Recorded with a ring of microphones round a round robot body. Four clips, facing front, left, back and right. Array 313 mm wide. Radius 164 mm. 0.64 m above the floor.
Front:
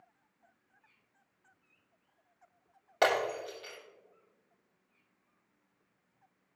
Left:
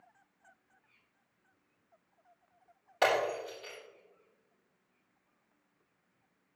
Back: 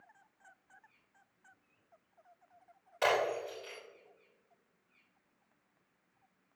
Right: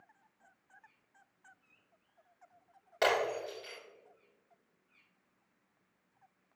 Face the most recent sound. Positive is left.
turn(degrees=-10)